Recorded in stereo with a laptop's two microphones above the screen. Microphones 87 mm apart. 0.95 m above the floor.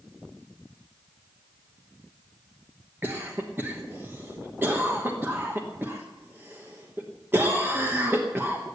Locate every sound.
3.0 s a cough: 25° right (ahead or behind), 1.1 m